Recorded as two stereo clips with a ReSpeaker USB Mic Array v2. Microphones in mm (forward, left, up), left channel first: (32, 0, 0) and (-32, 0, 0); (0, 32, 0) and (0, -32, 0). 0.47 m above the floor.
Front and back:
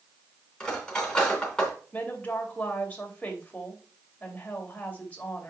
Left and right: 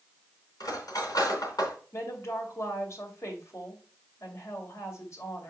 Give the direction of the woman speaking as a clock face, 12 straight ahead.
10 o'clock.